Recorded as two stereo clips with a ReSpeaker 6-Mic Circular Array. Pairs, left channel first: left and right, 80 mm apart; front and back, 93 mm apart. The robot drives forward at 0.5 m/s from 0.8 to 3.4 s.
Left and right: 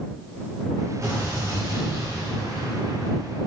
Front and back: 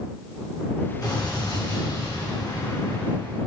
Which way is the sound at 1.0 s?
35° right.